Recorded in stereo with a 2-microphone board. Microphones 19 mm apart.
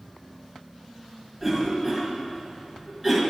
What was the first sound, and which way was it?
A cough, 5° right (ahead or behind).